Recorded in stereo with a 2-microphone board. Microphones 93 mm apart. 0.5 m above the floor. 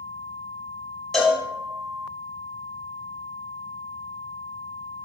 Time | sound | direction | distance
1.1 | a cowbell | 5° left (ahead or behind) | 1.3 m